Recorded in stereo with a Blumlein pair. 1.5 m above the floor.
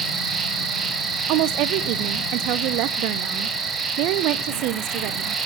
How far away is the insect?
About 1.7 m.